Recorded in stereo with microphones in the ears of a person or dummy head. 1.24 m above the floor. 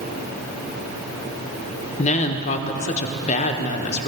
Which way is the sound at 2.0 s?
30° left (ahead or behind).